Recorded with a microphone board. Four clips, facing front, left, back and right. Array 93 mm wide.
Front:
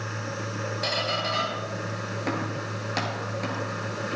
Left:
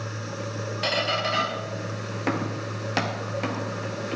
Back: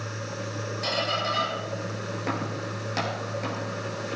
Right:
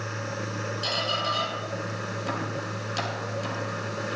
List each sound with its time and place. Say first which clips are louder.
0.8 s a squeak: left 4 dB, back 2 dB; 80° left, 1.6 m